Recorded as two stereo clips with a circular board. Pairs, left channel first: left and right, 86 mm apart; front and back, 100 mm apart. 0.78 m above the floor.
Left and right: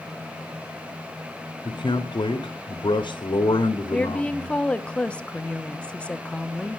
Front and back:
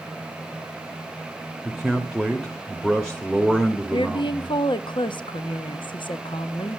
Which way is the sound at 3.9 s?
15° left.